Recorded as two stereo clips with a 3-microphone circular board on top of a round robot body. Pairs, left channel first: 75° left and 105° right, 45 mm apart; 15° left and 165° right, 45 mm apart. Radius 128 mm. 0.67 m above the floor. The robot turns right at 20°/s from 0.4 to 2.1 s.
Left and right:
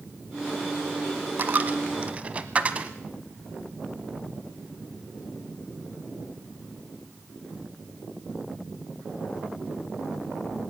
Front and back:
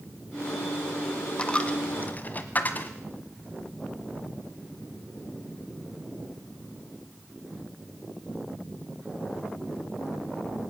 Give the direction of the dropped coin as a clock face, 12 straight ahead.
2 o'clock.